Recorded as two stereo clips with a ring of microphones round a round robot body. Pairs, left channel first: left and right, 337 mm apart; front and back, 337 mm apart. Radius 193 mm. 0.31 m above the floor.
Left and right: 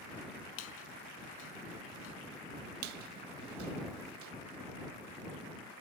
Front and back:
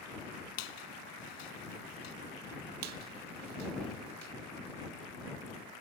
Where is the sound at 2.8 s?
135° right.